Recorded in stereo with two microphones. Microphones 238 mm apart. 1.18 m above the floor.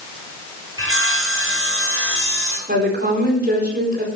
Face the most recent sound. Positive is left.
turn(degrees=-40)  # may be behind; listen again after turning